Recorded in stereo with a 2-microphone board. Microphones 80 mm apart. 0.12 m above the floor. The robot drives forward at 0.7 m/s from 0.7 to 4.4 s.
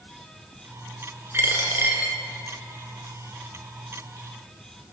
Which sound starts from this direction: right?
A dropped coin, at 1.3 s.